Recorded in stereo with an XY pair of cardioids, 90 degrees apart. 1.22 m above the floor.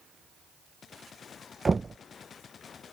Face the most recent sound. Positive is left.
turn(degrees=-30)